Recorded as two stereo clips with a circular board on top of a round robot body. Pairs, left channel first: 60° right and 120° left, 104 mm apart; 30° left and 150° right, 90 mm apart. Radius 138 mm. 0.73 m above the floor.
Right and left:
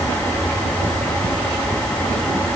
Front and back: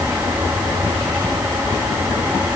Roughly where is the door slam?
No door slam in this recording.